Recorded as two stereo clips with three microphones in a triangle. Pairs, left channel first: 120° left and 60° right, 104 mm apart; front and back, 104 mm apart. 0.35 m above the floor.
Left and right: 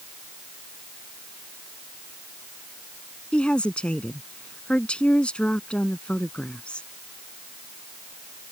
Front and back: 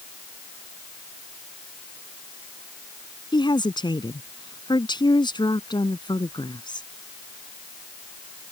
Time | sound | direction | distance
3.3 | a woman speaking | 40° left | ?